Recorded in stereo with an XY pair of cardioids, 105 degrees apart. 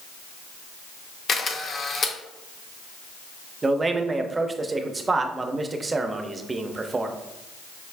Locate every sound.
1.3 s a camera shutter: 45° left, 0.7 m
3.6 s a man speaking: 25° right, 0.6 m